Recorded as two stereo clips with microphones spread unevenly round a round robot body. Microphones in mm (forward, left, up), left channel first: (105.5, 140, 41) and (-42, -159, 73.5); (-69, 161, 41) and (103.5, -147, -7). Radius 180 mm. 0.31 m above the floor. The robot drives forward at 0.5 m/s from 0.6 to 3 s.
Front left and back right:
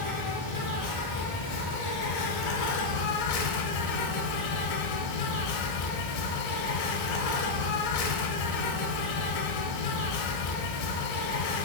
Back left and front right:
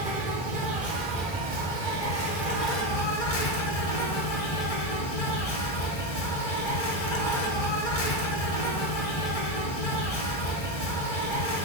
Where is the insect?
25° left, 1.6 m; by 11.7 s 70° left, 0.8 m.